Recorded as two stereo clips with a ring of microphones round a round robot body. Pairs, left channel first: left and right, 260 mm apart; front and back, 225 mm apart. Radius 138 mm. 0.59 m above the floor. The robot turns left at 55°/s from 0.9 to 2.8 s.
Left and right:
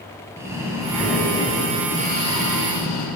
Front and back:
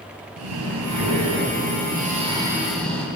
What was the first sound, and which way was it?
Breathing, 170° right.